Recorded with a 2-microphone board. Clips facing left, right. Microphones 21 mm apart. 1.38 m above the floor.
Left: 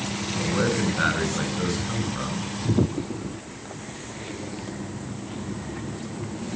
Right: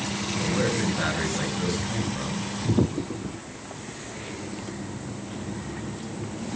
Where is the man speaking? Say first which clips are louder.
Left 2 dB; 40° left (ahead or behind), 7.5 m.